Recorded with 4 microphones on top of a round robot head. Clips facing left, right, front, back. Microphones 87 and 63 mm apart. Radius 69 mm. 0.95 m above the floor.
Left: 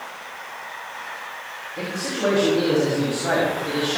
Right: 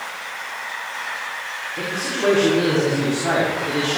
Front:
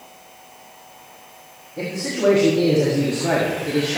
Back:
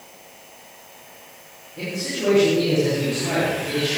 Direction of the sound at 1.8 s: 20° left.